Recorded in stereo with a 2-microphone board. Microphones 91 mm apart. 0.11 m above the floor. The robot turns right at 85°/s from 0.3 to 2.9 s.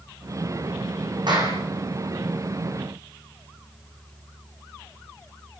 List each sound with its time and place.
1.3 s a clap: 55° right, 6.5 m; by 1.6 s 25° right, 6.5 m